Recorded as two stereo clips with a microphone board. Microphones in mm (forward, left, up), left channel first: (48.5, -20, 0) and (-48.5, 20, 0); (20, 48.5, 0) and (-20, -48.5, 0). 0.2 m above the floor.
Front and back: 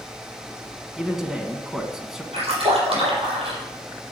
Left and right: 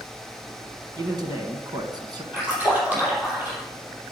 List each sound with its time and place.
1.0 s a man speaking: 120° right, 1.4 m
2.3 s a splash: 175° left, 4.5 m